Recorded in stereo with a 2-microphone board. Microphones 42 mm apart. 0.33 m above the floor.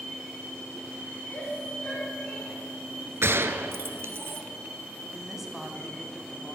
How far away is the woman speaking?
About 1.9 m.